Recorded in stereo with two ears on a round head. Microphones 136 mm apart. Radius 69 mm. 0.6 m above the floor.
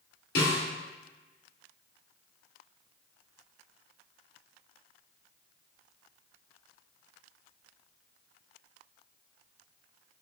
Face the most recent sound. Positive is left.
turn(degrees=75)  # may be behind; listen again after turning